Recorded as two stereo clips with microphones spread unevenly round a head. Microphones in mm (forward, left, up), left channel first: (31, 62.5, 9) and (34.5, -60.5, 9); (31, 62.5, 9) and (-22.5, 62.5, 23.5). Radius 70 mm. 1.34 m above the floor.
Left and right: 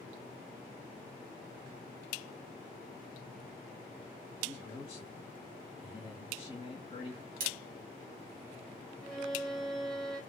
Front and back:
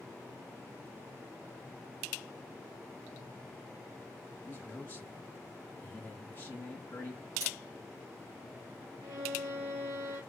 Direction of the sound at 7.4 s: 120° right.